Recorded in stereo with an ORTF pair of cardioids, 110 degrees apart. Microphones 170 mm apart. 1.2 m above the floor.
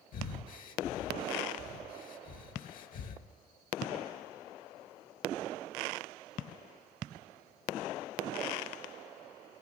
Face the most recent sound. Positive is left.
turn(degrees=60)